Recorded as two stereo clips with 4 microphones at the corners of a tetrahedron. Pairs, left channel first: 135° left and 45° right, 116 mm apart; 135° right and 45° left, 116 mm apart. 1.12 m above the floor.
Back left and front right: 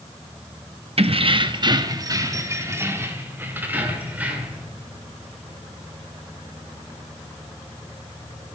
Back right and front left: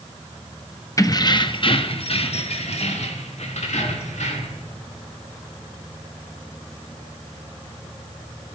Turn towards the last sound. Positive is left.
turn(degrees=-125)